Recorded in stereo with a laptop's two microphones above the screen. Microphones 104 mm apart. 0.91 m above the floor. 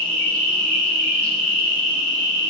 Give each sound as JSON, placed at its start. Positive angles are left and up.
{"t": 0.0, "sound": "an insect", "side_deg": 10, "distance_m": 0.8}